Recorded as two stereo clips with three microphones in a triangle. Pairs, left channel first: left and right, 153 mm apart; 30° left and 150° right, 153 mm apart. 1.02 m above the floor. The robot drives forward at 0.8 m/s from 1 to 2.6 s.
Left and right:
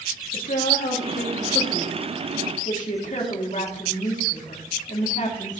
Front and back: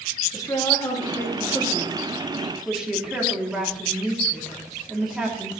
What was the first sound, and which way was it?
A woman speaking, 95° left.